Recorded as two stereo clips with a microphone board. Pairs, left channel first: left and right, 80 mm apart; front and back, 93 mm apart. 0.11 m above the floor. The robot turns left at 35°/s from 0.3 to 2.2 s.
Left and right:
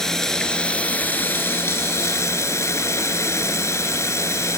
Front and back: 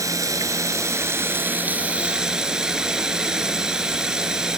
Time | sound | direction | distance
0.0 | running water | 170° left | 1.1 m